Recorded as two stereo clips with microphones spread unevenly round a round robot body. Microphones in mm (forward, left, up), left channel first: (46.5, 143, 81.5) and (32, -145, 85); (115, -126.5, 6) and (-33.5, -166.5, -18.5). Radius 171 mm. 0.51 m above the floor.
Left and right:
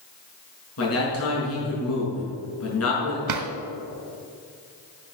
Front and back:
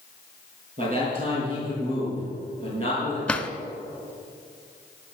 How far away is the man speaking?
About 6.5 m.